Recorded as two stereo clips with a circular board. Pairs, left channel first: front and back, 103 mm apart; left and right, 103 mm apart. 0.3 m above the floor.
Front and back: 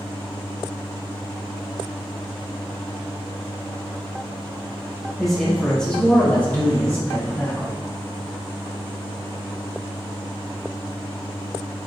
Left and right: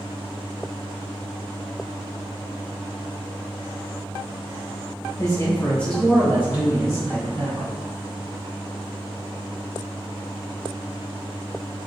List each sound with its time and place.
5.2 s a man speaking: 90° left, 1.2 m; by 7.8 s 65° right, 1.8 m